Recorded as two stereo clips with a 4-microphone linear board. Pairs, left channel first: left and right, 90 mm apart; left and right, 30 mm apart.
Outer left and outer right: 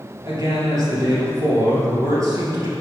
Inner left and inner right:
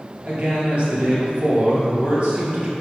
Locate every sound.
0.2 s a man speaking: 40° right (ahead or behind), 2.5 m